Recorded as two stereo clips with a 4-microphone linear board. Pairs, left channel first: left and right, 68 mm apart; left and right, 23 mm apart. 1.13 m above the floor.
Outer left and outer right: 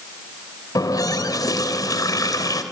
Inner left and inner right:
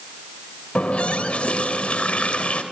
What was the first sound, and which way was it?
A running tap, 60° left (ahead or behind).